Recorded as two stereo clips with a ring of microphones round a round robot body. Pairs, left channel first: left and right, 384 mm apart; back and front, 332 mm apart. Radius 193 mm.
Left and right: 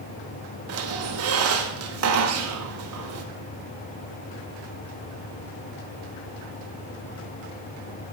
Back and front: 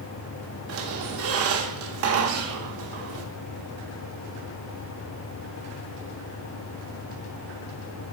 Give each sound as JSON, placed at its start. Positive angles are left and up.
{"t": 0.7, "sound": "a squeak", "azimuth_deg": -45, "distance_m": 0.6}